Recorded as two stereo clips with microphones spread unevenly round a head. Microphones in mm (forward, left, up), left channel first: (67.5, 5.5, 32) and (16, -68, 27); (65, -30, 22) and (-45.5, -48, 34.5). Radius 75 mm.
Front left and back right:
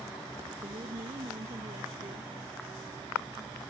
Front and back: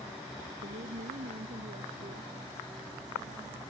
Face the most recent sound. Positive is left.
turn(degrees=-165)